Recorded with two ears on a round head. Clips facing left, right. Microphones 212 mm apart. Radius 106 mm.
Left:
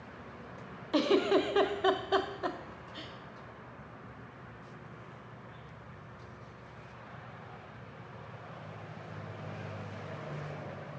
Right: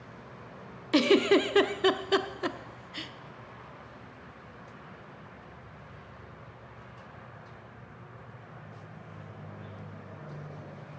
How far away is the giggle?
About 0.8 m.